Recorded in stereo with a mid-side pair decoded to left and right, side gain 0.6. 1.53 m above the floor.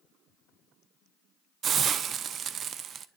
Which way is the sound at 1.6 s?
45° right.